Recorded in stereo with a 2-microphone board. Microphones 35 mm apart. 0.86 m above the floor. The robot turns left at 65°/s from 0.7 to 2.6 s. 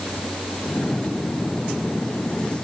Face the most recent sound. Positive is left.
No sound to turn to.